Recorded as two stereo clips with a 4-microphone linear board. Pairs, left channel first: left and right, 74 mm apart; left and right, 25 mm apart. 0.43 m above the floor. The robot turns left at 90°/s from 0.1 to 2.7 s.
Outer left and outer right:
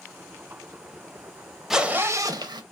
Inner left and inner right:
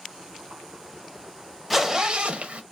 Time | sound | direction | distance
1.7 | a zipper | 5° right | 0.5 m